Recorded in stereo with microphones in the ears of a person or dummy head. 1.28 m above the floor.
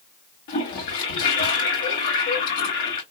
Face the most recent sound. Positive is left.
turn(degrees=60)  # may be behind; listen again after turning